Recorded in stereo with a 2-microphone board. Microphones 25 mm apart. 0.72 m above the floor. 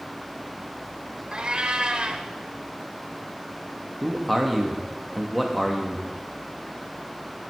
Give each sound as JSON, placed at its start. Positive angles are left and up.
{"t": 1.3, "sound": "a cat meowing", "side_deg": -40, "distance_m": 0.9}
{"t": 4.0, "sound": "a man speaking", "side_deg": 5, "distance_m": 1.1}